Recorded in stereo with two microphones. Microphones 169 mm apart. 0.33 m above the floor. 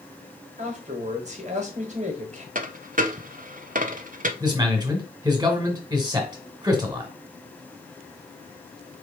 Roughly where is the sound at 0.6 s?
Right.